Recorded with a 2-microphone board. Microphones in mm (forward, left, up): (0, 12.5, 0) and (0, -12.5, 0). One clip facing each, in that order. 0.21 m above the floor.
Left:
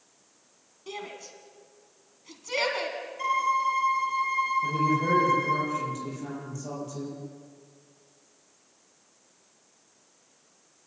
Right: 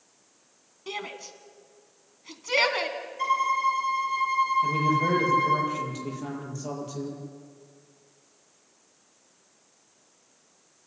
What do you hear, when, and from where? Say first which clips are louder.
0.9 s a shout: right 3 dB; 25° right (ahead or behind), 2 m
3.2 s a violin: right 1 dB; 10° right (ahead or behind), 6.5 m
4.6 s a man speaking: right 1 dB; 25° right (ahead or behind), 7 m